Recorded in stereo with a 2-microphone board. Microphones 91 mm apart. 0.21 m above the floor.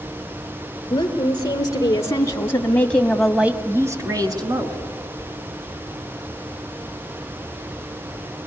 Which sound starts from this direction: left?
A woman speaking, at 0.9 s.